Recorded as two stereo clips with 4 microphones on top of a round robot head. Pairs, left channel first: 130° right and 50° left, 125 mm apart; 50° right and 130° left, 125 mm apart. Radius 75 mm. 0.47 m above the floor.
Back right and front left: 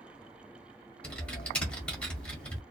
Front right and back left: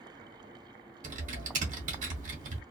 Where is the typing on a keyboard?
145° left, 1.3 m.